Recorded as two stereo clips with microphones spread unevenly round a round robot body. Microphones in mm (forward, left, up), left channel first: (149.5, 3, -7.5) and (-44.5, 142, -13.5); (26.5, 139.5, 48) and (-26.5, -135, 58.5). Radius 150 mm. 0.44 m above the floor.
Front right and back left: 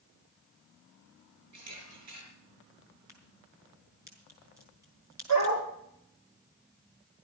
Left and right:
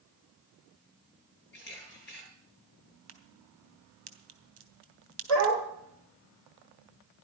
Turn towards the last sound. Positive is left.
turn(degrees=155)